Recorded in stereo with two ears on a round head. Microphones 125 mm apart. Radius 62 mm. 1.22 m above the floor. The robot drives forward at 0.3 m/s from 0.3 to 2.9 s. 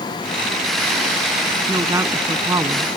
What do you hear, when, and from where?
1.7 s a woman speaking: 20° right (ahead or behind)